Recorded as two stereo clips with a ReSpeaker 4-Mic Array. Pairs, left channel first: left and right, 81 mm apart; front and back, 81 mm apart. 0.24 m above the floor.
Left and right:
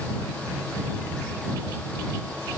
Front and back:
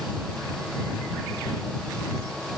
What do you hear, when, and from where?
Only background noise.